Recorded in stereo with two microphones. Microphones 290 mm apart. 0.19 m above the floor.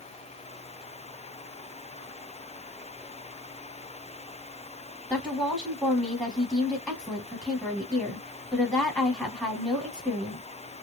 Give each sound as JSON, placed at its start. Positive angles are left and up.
{"t": 5.1, "sound": "a woman speaking", "side_deg": 5, "distance_m": 1.2}